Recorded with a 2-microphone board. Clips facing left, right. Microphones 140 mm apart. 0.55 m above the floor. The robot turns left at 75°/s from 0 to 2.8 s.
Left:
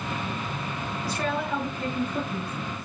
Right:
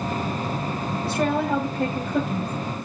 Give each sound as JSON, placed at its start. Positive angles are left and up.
{"t": 1.0, "sound": "a woman speaking", "azimuth_deg": -20, "distance_m": 2.5}